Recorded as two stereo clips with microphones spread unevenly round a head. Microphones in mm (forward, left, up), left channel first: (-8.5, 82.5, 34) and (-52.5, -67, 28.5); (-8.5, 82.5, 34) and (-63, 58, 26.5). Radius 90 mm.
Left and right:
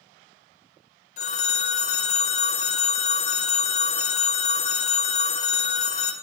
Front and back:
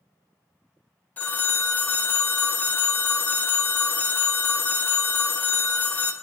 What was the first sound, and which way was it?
A phone ringing, 60° left.